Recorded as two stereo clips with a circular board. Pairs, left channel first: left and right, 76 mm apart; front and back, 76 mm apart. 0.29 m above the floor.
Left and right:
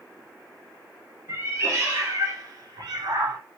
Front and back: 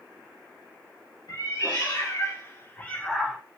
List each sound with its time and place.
1.3 s a cat meowing: 35° right, 1.5 m; by 3.4 s 100° right, 0.5 m